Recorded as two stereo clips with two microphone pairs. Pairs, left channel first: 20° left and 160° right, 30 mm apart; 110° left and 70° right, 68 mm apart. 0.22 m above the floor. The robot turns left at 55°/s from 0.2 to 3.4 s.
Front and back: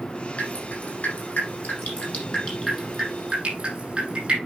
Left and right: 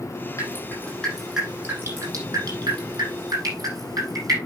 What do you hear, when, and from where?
0.4 s dripping: 65° left, 7.5 m; by 4.4 s 100° right, 7.5 m